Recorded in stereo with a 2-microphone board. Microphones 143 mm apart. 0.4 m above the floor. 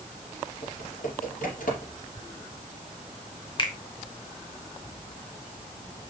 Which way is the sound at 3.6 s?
35° left (ahead or behind).